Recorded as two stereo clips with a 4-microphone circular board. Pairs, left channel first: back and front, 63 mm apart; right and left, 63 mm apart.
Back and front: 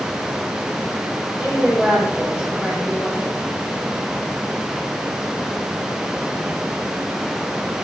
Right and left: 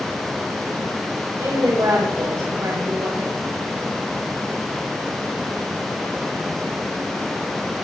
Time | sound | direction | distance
1.4 | a woman speaking | 70° left | 9 m